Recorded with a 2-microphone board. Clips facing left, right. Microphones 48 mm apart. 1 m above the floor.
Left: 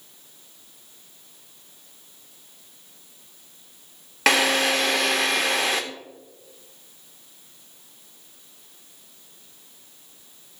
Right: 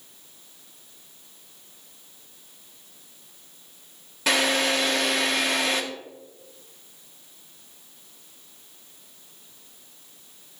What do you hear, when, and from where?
4.3 s a drill: 85° left, 1.5 m